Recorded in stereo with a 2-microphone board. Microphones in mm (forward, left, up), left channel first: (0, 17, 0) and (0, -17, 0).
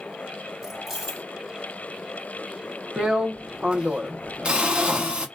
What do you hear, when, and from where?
0.6 s keys jangling: 10° right (ahead or behind), 1.4 m
3.0 s a drill: 30° right (ahead or behind), 0.6 m